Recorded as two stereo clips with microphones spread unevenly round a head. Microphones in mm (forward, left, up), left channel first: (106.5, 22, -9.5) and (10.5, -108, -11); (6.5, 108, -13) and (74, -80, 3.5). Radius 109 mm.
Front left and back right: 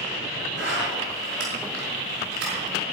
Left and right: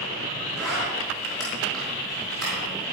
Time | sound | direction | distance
0.6 | a zipper | 160° right | 5 m